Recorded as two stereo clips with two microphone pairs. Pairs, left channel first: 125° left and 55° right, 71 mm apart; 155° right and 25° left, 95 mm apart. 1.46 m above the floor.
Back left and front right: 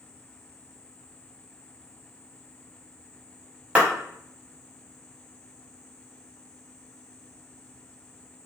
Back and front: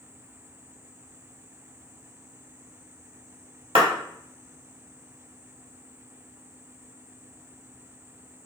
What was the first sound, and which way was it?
A clap, 15° left.